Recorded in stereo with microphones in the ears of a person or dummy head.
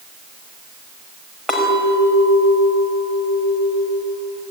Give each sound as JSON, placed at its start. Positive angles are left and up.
{"t": 1.5, "sound": "a clink", "side_deg": 5, "distance_m": 5.0}